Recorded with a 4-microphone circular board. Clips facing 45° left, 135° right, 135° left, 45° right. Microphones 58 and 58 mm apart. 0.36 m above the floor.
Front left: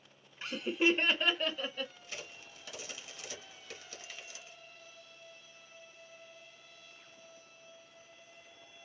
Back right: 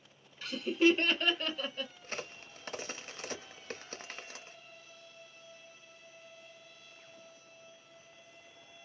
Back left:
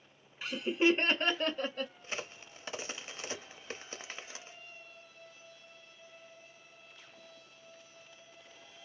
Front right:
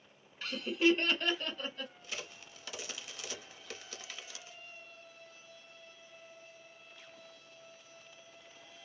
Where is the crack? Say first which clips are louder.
Back right 5 dB, back left 3 dB; 170° right, 0.6 m.